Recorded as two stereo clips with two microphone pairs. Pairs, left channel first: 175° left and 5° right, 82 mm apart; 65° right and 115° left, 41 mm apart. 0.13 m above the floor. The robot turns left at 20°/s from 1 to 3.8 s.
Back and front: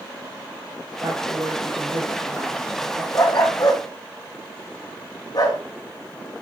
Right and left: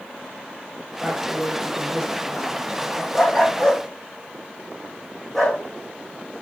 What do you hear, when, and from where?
1.0 s a woman speaking: 30° left, 3.5 m; by 3.0 s 10° right, 3.5 m
3.1 s a dog barking: 135° right, 3 m; by 5.6 s 145° right, 3 m